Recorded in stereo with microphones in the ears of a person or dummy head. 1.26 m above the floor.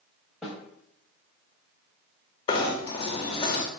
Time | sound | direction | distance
0.4 | a snare drum | centre (ahead or behind) | 0.8 m
2.5 | knocking | 25° left (ahead or behind) | 0.5 m